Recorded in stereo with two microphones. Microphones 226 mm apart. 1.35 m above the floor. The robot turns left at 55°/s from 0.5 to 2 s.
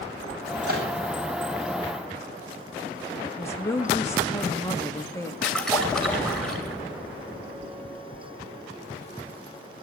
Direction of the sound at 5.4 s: 5° left (ahead or behind).